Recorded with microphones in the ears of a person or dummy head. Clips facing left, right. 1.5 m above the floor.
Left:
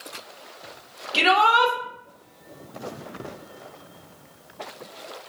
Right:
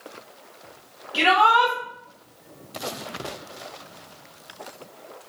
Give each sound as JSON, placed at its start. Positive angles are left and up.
{"t": 1.1, "sound": "a shout", "side_deg": 40, "distance_m": 4.5}